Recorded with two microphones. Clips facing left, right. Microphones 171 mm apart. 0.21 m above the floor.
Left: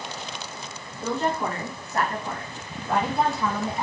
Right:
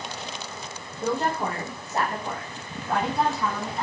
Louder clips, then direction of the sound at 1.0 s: Even; 45° right (ahead or behind).